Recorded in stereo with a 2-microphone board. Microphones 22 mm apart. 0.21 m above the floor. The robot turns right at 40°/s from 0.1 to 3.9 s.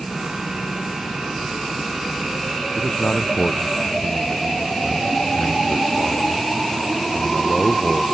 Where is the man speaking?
110° left; by 8.0 s 155° left.